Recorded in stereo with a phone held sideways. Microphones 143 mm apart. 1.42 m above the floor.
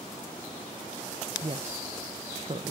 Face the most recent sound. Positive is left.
turn(degrees=-45)  # may be behind; listen again after turning